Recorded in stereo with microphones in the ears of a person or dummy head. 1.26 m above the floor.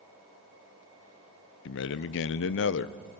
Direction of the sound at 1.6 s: 65° left (ahead or behind).